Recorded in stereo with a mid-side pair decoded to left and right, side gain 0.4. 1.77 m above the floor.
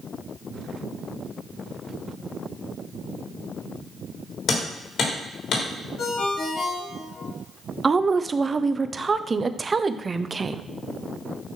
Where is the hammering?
70° left, 3.5 m.